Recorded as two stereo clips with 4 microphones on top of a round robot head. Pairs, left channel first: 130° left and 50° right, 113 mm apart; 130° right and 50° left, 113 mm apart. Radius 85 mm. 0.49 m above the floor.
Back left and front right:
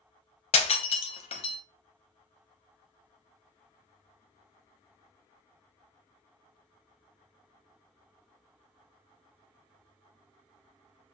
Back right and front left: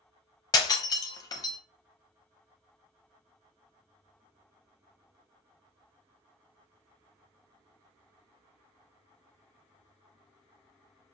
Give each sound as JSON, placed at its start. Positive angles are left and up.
{"t": 0.5, "sound": "breaking glass", "azimuth_deg": 170, "distance_m": 0.9}